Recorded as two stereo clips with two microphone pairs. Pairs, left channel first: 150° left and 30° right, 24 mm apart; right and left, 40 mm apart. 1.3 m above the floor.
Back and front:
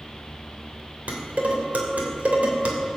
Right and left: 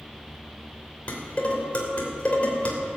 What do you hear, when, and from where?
1.1 s dishes clattering: 35° right, 3 m